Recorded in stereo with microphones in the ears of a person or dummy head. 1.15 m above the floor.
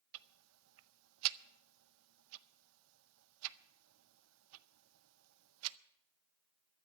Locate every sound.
0.1 s ticking: 70° right (ahead or behind), 0.5 m